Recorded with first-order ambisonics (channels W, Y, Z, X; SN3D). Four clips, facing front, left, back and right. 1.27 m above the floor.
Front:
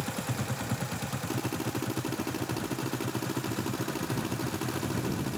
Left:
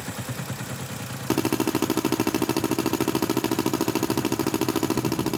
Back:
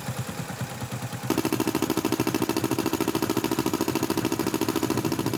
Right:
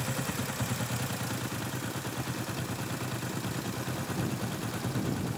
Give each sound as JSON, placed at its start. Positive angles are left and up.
{"t": 1.3, "sound": "a drill", "azimuth_deg": 125}